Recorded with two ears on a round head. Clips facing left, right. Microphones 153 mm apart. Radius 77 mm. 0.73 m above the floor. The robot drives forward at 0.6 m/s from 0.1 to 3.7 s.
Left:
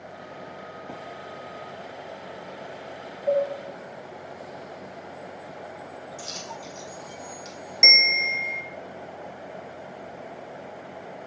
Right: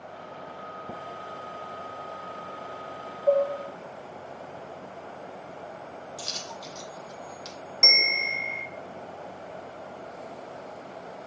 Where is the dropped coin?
45° right (ahead or behind), 1.9 m.